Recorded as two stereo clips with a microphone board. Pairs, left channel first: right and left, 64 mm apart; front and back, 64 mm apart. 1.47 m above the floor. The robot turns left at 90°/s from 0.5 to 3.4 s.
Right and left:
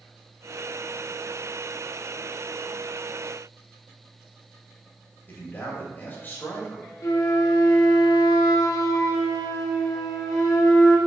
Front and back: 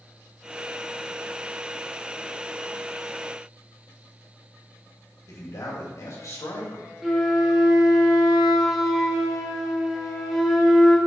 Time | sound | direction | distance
5.3 | a man speaking | 30° right | 3 m
7.0 | a flute | 95° right | 1.3 m